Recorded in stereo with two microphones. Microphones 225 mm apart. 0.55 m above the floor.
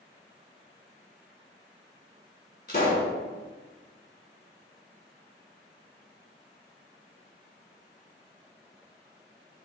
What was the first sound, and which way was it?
A pop, 45° left (ahead or behind).